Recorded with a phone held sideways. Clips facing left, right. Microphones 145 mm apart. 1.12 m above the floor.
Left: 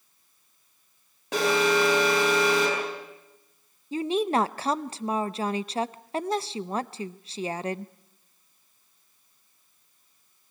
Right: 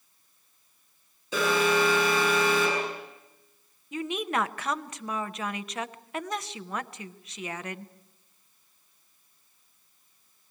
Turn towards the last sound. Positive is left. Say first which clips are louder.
# left 6 dB
turn(degrees=35)  # may be behind; listen again after turning